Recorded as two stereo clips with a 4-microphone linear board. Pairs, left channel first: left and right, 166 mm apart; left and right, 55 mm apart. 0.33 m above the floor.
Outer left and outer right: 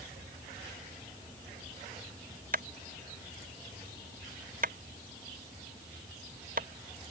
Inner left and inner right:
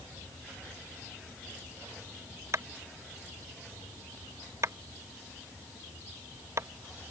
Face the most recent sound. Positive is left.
turn(degrees=-55)  # may be behind; listen again after turning